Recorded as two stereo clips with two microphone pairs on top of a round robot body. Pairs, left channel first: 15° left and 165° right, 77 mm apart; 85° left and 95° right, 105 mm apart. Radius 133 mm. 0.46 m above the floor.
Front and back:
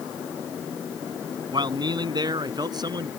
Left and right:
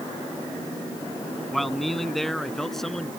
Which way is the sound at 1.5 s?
170° left.